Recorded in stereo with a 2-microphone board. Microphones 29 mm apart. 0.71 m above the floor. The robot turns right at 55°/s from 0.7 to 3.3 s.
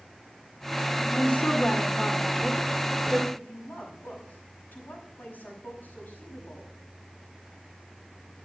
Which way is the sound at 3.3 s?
80° left.